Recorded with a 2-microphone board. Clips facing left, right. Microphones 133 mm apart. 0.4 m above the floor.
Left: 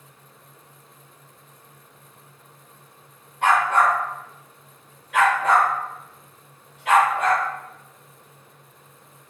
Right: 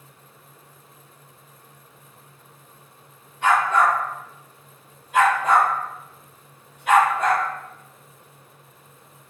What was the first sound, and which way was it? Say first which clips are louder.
A dog barking: even; 65° left (ahead or behind).